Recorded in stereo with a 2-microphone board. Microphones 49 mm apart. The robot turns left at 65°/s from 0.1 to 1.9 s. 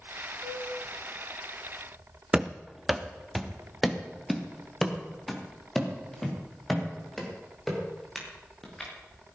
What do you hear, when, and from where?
0.4 s a flute: 80° right, 6.5 m; by 0.7 s 70° right (ahead or behind), 6.5 m
2.3 s running footsteps: 15° right (ahead or behind), 0.6 m; by 9.3 s 5° left (ahead or behind), 6.5 m